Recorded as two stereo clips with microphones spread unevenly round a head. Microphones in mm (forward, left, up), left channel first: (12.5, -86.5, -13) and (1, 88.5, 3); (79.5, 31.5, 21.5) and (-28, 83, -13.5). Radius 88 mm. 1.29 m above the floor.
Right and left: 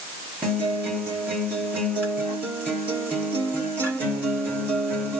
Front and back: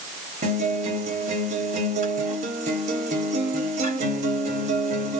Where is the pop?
No pop in this recording.